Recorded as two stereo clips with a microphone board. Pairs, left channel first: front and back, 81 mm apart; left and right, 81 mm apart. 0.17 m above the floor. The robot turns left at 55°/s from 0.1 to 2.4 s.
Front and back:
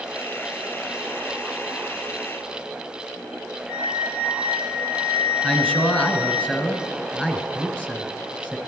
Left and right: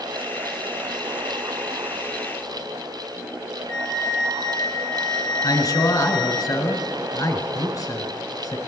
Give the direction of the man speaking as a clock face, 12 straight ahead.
10 o'clock.